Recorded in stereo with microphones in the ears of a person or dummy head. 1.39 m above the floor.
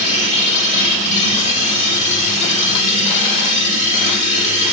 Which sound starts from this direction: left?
A machine running, at 0.0 s.